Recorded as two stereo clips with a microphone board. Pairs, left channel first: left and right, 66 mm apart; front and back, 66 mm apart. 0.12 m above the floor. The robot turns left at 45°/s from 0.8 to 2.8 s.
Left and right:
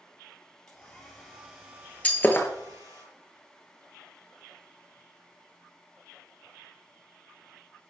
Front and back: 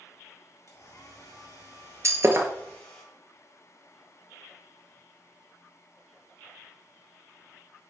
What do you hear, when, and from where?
0.7 s a hair dryer: 15° left, 3 m; by 3.0 s 75° right, 3 m
2.0 s breaking glass: 155° left, 0.9 m; by 2.5 s 135° left, 0.9 m